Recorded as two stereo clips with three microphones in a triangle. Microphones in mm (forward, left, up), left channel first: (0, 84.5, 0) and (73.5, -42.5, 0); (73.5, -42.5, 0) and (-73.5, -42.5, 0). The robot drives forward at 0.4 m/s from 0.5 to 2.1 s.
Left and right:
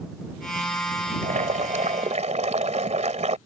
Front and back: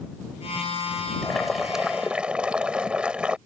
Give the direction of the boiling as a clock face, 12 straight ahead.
3 o'clock.